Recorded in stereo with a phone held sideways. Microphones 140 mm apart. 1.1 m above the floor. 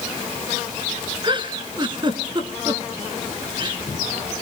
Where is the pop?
No pop in this recording.